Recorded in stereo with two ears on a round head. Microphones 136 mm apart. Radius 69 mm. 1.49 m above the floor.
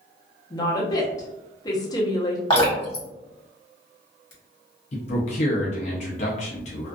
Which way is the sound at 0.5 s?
25° left (ahead or behind).